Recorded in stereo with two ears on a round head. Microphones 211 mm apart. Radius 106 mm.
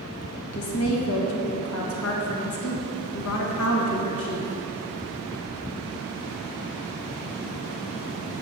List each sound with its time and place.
0.5 s a woman speaking: 70° left (ahead or behind), 1.3 m